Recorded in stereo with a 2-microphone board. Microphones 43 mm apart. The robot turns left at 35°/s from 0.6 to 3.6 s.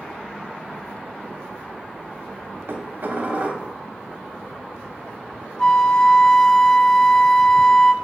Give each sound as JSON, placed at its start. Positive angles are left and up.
{"t": 2.7, "sound": "dishes clattering", "azimuth_deg": -110, "distance_m": 1.8}
{"t": 5.6, "sound": "a flute", "side_deg": 15, "distance_m": 0.8}